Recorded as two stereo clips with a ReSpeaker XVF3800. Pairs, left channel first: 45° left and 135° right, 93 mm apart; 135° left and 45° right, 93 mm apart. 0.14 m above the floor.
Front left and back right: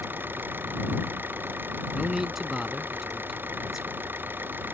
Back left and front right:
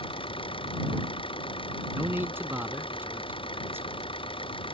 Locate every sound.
0.0 s an engine running: 155° left
1.9 s a man speaking: 55° right